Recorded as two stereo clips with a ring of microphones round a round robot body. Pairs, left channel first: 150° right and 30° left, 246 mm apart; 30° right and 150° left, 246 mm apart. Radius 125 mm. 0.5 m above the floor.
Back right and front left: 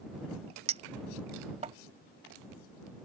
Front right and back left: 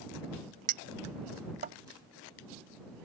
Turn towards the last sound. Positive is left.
turn(degrees=95)